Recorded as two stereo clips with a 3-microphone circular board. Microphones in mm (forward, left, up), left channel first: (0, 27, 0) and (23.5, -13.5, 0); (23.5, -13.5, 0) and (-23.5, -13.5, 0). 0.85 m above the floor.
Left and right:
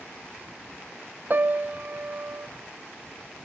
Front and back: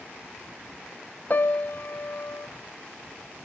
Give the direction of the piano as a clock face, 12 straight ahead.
1 o'clock.